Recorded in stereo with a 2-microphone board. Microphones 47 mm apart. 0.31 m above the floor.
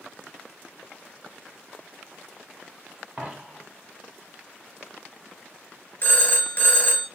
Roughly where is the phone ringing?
Left.